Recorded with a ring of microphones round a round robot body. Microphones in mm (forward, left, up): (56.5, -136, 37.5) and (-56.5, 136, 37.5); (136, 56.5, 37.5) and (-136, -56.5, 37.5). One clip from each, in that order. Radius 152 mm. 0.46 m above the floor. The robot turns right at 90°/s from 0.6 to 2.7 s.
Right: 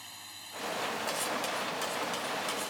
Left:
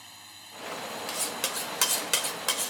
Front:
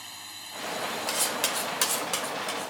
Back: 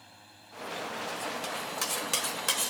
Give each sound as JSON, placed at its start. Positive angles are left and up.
{"t": 0.0, "sound": "a drone", "azimuth_deg": 15}
{"t": 1.1, "sound": "cutlery clinking", "azimuth_deg": 25}